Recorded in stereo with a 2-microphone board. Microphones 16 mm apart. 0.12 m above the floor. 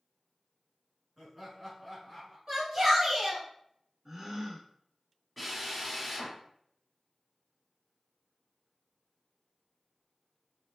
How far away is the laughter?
About 1.2 m.